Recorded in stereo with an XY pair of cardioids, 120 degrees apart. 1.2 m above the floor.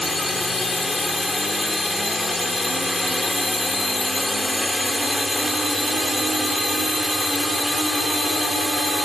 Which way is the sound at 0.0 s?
20° left.